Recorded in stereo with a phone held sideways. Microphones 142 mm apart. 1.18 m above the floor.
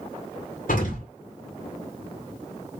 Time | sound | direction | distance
0.7 | an explosion | 75° left (ahead or behind) | 2 m